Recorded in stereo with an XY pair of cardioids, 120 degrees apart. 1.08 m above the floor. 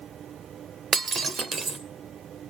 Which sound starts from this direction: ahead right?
Breaking glass, at 0.9 s.